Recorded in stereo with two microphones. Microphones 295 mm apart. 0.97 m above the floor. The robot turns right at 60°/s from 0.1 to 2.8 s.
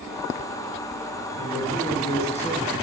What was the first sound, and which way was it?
A man speaking, centre (ahead or behind).